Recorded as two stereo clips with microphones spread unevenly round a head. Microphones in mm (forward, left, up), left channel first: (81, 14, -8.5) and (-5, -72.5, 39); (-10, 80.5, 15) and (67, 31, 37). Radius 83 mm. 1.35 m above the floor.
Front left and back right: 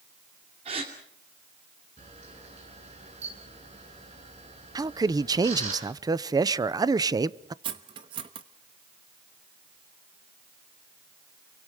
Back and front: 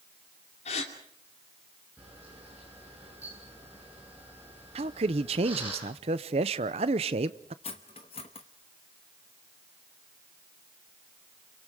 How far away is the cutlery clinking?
About 0.9 m.